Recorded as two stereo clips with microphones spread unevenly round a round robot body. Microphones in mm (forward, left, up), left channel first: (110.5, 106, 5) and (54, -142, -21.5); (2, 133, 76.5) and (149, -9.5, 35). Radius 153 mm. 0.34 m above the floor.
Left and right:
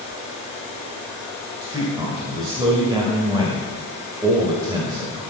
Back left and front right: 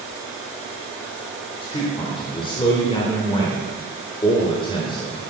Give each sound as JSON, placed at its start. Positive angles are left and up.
{"t": 1.6, "sound": "a man speaking", "azimuth_deg": -160, "distance_m": 1.7}